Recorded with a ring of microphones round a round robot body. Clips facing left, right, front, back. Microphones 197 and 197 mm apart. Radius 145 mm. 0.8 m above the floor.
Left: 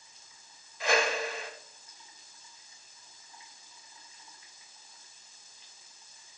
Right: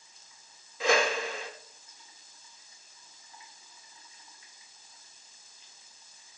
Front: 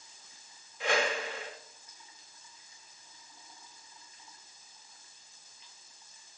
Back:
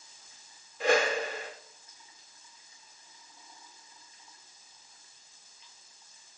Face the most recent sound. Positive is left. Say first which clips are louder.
# right 2 dB, back 5 dB
turn(degrees=-115)